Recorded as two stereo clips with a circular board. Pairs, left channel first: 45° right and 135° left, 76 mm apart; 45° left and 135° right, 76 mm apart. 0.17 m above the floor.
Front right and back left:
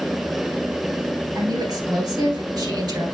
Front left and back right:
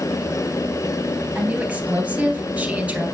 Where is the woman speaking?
155° left, 3 m.